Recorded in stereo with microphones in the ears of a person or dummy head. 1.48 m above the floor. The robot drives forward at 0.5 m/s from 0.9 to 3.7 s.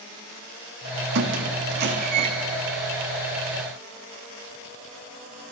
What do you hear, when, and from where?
1.1 s a squeak: 65° right (ahead or behind), 1.7 m; by 2.3 s 50° right (ahead or behind), 2.0 m